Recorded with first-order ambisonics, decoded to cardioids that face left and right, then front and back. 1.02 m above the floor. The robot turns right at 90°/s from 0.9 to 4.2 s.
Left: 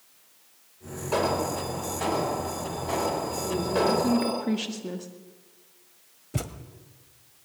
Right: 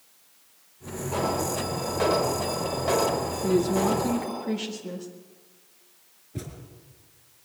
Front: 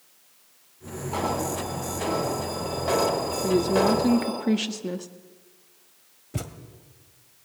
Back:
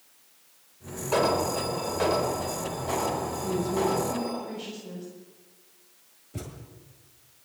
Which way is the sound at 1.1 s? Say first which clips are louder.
Left 2 dB, back 3 dB; 150° left.